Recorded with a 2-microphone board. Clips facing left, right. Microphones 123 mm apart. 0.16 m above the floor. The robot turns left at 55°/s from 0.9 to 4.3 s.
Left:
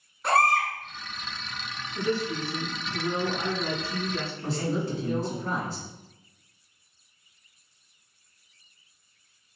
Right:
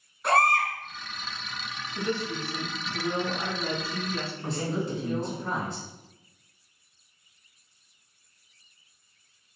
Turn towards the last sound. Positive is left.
turn(degrees=-20)  # may be behind; listen again after turning